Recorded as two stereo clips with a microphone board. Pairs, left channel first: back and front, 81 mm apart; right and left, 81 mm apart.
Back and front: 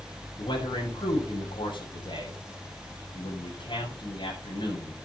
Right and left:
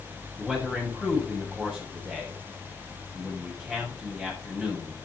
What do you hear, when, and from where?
0.4 s a man speaking: 170° left, 8 m